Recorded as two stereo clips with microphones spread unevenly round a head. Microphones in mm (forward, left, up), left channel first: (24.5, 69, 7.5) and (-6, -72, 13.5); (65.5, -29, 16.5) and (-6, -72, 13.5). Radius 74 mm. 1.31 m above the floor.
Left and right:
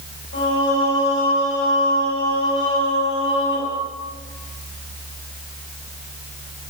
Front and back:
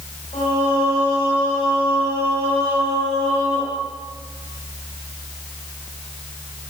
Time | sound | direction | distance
0.3 | singing | 75° left | 3.5 m